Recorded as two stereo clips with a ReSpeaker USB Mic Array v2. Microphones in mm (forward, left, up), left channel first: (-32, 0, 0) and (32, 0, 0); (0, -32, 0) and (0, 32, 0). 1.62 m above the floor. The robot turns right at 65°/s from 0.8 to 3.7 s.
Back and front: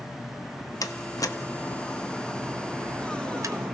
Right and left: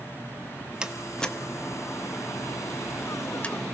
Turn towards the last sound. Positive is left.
turn(degrees=-5)